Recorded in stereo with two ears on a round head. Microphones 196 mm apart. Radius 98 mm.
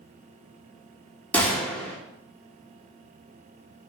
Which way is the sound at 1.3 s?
5° left (ahead or behind).